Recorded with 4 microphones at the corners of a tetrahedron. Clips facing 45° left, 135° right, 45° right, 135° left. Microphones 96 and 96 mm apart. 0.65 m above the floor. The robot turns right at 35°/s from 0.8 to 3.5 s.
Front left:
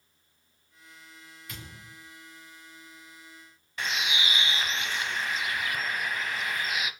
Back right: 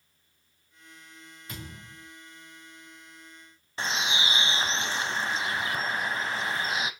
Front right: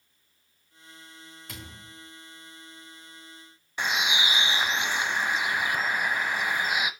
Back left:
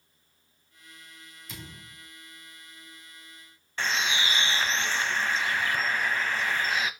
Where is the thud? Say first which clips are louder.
Back right 4 dB, even; 80° right, 4 m; by 2.1 s 60° right, 4 m.